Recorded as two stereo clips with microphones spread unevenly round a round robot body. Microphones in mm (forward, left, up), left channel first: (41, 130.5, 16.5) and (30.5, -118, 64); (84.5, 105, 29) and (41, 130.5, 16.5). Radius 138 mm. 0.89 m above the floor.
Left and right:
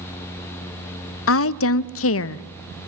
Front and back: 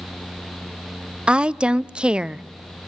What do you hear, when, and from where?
1.3 s a woman speaking: 85° left, 0.7 m